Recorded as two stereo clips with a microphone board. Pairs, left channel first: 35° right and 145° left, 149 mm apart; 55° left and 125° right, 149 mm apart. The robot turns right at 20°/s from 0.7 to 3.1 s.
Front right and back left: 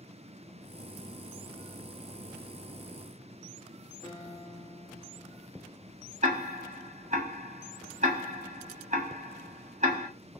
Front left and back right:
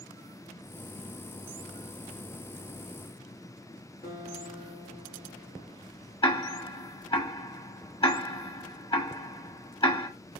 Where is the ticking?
105° left, 1.2 m.